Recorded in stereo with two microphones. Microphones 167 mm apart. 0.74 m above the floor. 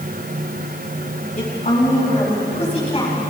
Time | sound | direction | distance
1.4 | a woman speaking | 50° left (ahead or behind) | 4.5 m